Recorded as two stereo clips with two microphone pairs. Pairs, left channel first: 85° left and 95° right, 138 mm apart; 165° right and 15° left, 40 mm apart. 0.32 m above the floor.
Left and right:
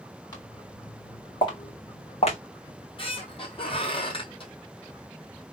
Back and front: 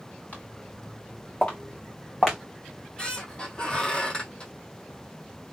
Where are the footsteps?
150° left, 2.5 m; by 2.4 s 125° left, 1.6 m.